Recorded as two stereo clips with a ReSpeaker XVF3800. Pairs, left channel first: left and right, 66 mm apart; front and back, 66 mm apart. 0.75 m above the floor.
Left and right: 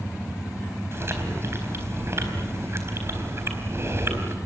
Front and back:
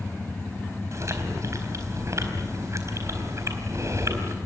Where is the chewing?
140° right, 4 m.